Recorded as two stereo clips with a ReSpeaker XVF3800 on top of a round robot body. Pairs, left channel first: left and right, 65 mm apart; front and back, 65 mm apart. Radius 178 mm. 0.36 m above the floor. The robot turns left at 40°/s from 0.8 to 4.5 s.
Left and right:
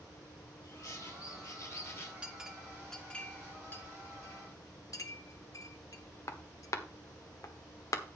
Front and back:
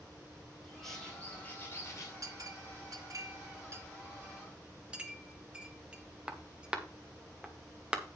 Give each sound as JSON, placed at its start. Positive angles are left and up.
{"t": 0.6, "sound": "a bird", "azimuth_deg": 90, "distance_m": 4.5}
{"t": 2.2, "sound": "a clink", "azimuth_deg": -160, "distance_m": 1.5}